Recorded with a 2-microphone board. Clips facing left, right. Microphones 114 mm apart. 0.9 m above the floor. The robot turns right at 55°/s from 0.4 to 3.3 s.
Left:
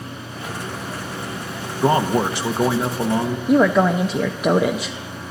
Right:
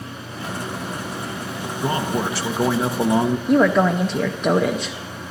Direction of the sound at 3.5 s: 5° left (ahead or behind).